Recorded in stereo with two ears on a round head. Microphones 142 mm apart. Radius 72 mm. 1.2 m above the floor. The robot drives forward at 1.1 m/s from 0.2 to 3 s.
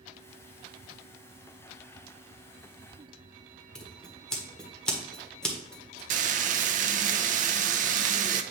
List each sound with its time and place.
3.8 s scissors: 5° left (ahead or behind), 1.5 m
6.1 s frying: 50° right (ahead or behind), 0.5 m